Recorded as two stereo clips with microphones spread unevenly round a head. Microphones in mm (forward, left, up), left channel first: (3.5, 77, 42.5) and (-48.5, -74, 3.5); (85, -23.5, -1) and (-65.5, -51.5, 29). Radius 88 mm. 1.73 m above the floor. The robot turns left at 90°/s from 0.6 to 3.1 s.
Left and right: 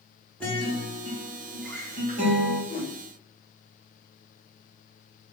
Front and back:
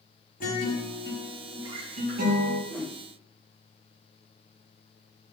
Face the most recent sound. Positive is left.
turn(degrees=75)